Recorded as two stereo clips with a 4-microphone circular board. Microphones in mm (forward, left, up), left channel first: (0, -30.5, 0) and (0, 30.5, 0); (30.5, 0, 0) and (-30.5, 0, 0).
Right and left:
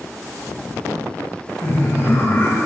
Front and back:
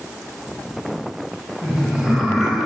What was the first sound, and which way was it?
Laughter, 95° right.